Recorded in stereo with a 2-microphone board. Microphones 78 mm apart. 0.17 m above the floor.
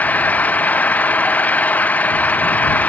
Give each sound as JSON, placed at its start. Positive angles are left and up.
{"t": 0.0, "sound": "an engine running", "side_deg": 20}